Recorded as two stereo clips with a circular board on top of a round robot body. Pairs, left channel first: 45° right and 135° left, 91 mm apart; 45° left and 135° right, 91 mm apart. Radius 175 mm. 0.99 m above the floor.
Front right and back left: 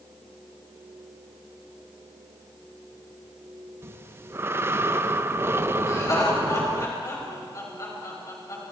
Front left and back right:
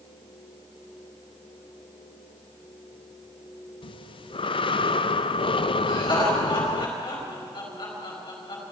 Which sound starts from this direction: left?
Breathing, at 3.8 s.